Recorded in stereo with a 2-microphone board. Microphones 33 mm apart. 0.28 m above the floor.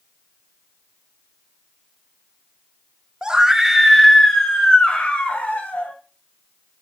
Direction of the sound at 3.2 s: 20° right (ahead or behind).